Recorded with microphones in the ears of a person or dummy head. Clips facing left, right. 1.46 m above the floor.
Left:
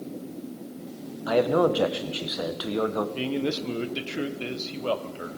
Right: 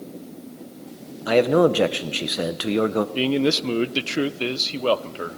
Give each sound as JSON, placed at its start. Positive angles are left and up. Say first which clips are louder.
{"t": 1.3, "sound": "a man speaking", "louder": "right 5 dB", "side_deg": -35, "distance_m": 0.8}
{"t": 3.1, "sound": "a man speaking", "louder": "right 6 dB", "side_deg": -65, "distance_m": 0.7}